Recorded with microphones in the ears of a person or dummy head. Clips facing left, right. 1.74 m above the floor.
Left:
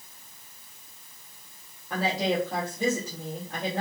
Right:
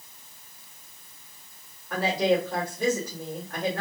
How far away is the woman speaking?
About 1.7 m.